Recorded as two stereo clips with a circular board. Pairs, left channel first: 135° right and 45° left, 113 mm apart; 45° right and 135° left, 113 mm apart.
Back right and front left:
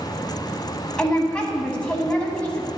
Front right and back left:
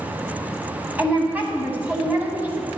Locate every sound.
1.0 s a woman speaking: 165° left, 1.0 m